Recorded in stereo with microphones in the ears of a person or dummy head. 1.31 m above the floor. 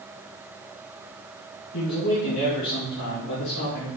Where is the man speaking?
65° left (ahead or behind), 1.9 m; by 3.9 s 75° left (ahead or behind), 3 m.